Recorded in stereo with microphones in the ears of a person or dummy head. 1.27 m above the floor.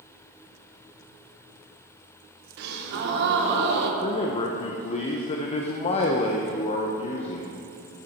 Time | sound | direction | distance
2.6 | a gasp | 55° right (ahead or behind) | 1.1 m
4.0 | a man speaking | 35° left (ahead or behind) | 0.6 m